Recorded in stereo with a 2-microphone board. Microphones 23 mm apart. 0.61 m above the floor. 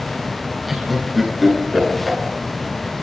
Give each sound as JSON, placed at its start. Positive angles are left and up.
{"t": 0.7, "sound": "laughter", "side_deg": -5, "distance_m": 10.0}